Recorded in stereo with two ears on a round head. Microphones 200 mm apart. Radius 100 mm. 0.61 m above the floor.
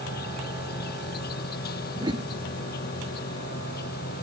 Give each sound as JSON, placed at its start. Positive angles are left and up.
{"t": 0.0, "sound": "an insect", "side_deg": 45}
{"t": 2.0, "sound": "a whoosh", "side_deg": -20}